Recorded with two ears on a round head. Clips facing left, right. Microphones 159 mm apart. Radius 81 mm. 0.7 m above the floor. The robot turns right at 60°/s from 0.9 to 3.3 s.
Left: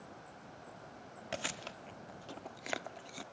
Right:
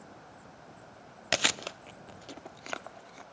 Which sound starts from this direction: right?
Chewing, at 1.3 s.